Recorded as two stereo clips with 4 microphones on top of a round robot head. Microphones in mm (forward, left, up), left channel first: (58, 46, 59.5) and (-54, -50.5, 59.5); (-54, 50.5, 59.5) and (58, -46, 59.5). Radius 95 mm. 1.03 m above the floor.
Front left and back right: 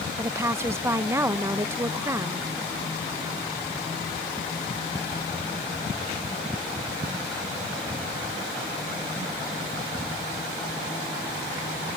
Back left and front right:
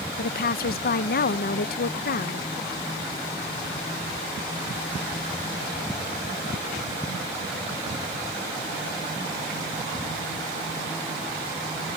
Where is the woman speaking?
150° left.